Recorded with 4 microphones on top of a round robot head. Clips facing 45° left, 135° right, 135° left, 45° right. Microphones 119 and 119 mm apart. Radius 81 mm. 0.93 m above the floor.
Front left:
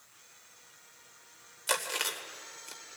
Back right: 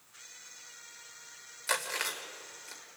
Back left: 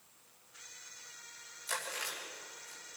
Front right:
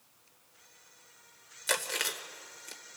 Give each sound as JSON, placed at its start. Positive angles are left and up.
{"t": 1.7, "sound": "chewing", "azimuth_deg": -25, "distance_m": 1.9}